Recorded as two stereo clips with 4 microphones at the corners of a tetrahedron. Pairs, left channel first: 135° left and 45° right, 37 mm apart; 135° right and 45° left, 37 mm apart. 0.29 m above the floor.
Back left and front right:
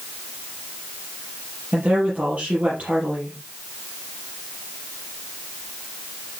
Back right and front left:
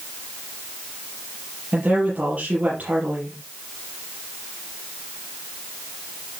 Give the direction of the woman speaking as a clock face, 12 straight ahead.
12 o'clock.